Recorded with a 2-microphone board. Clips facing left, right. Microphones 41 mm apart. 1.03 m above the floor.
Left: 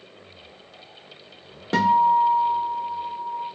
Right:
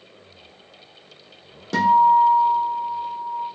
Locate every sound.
1.7 s a guitar: 30° left (ahead or behind), 0.7 m